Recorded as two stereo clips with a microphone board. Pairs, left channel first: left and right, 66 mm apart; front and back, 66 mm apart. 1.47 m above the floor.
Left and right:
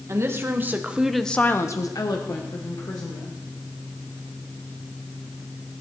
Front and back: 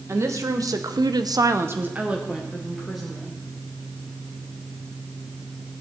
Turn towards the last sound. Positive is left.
turn(degrees=85)